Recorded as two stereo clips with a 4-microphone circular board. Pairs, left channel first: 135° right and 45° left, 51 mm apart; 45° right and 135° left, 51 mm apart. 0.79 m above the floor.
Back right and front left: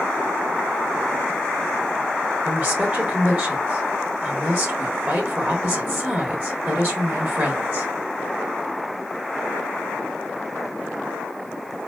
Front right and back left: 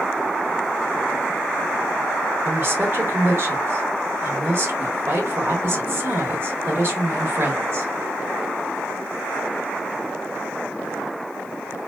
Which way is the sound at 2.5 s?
95° left.